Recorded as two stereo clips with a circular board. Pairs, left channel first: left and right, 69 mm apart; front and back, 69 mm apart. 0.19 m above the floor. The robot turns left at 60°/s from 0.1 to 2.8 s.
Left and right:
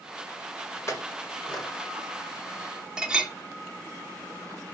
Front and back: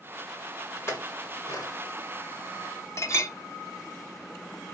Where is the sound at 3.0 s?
20° right, 0.9 m.